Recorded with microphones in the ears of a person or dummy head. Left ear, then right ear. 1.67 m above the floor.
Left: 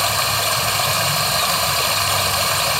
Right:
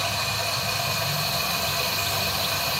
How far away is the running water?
About 0.9 m.